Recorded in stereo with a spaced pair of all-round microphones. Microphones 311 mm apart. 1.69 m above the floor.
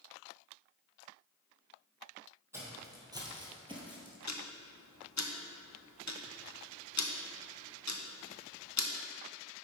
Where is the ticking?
60° left (ahead or behind), 0.7 m.